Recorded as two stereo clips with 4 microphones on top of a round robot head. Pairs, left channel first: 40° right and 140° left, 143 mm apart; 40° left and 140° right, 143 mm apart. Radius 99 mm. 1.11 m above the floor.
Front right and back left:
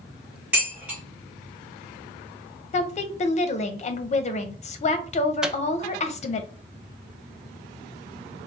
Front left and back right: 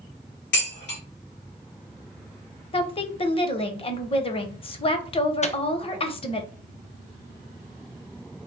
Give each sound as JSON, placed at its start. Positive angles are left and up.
{"t": 0.5, "sound": "dishes clattering", "azimuth_deg": 55, "distance_m": 2.0}
{"t": 2.7, "sound": "a woman speaking", "azimuth_deg": -5, "distance_m": 0.7}
{"t": 5.4, "sound": "a microwave", "azimuth_deg": 55, "distance_m": 0.5}